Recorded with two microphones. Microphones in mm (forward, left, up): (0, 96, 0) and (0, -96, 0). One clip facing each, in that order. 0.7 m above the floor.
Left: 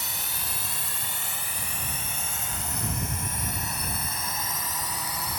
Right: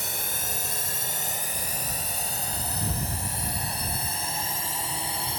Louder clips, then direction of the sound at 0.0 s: Right 4 dB; 50° right (ahead or behind).